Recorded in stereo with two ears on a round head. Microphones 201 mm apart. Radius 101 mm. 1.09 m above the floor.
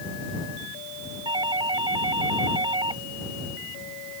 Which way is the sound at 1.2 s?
20° right (ahead or behind).